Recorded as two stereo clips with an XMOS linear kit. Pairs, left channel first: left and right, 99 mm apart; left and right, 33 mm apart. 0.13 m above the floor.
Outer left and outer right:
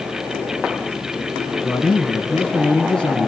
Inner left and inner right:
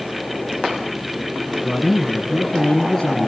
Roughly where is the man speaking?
Centre.